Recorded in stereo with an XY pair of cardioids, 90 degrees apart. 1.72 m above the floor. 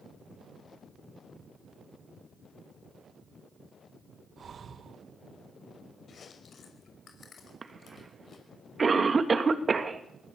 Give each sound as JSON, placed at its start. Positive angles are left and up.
{"t": 4.4, "sound": "breathing", "azimuth_deg": -50, "distance_m": 1.7}
{"t": 6.1, "sound": "chewing", "azimuth_deg": 55, "distance_m": 5.5}
{"t": 7.6, "sound": "a cough", "azimuth_deg": -35, "distance_m": 3.0}